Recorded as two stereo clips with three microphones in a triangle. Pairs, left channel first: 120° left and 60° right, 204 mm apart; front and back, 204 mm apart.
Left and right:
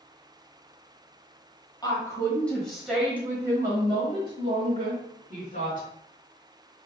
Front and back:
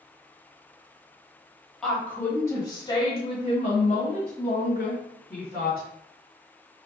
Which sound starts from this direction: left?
A woman speaking, at 1.8 s.